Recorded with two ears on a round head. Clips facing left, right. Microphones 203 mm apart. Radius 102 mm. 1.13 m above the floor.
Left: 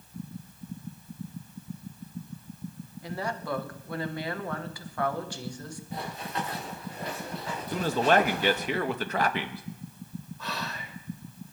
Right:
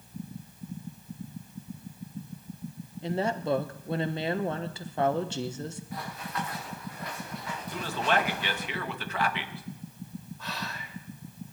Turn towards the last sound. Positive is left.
turn(degrees=80)